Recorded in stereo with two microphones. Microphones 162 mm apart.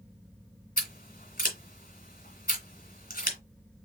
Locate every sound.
0.8 s scissors: 60° left (ahead or behind), 2.5 m